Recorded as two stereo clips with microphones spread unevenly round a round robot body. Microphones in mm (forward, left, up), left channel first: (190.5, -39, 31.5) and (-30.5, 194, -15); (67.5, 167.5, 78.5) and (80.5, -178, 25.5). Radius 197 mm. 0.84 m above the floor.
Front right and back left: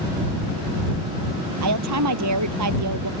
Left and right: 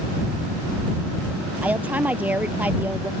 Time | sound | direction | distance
1.6 | a woman speaking | 175° right | ?